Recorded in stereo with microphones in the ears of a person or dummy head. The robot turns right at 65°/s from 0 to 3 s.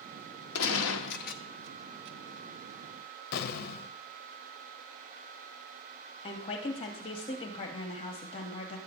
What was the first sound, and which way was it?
A gunshot, 80° left.